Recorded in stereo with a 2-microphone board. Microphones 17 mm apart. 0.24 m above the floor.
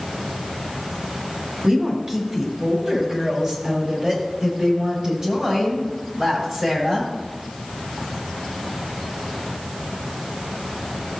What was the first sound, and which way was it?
A woman speaking, 30° right (ahead or behind).